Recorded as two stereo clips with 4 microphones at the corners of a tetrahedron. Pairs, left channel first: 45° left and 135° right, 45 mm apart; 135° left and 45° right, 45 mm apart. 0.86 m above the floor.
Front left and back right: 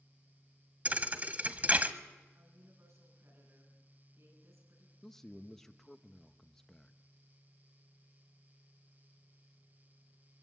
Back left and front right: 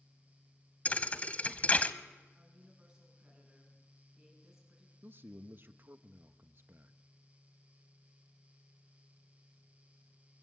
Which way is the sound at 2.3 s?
120° right.